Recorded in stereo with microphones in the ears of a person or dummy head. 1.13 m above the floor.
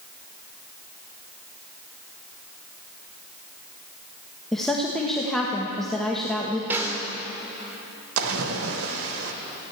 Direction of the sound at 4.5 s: Centre (ahead or behind).